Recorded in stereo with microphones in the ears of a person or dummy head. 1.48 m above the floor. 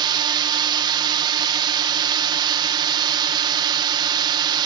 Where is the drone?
25° right (ahead or behind).